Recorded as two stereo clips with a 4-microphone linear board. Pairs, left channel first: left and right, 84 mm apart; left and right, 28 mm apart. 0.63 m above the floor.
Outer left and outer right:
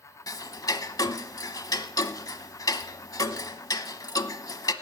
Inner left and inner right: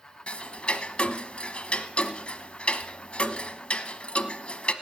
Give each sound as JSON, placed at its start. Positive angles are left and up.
{"t": 0.3, "sound": "ticking", "side_deg": 45, "distance_m": 0.9}